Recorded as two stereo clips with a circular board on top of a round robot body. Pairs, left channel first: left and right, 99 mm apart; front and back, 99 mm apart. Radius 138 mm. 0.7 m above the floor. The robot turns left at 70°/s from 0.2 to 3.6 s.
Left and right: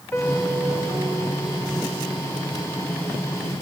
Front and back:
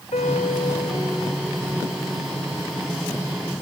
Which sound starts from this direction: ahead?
A piano, at 0.1 s.